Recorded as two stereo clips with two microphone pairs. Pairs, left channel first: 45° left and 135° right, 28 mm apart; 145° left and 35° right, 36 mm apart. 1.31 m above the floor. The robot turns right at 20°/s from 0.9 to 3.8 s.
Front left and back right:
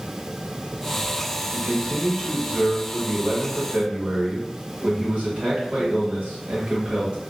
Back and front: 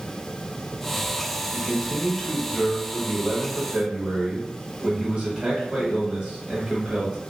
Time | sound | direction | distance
1.5 | a man speaking | 150° right | 1.4 m